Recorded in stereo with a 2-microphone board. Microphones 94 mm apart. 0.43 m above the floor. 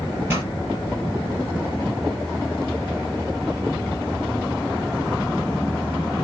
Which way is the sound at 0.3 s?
20° right (ahead or behind).